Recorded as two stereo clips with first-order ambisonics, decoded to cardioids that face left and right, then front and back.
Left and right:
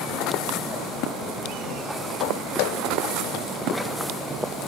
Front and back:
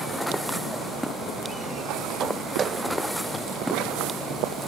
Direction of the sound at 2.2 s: 110° left.